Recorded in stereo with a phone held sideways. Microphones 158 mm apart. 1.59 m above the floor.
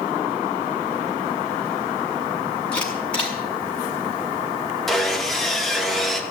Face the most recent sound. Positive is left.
turn(degrees=0)  # may be behind; listen again after turning